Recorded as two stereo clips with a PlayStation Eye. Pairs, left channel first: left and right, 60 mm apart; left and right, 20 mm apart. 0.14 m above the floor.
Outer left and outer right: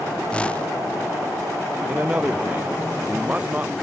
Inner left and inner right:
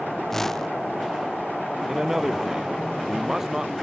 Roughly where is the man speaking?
Right.